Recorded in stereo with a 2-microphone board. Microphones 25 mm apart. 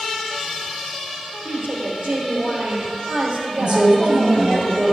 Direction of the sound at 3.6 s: 40° right (ahead or behind).